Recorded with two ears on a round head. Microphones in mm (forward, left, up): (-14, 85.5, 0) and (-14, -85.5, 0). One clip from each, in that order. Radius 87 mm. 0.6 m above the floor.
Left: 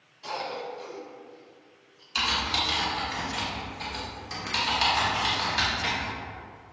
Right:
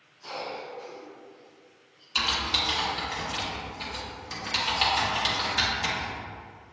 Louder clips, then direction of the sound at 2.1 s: Even; 5° right (ahead or behind).